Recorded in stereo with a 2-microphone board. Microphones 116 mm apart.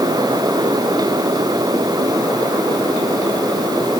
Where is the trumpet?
I don't hear a trumpet.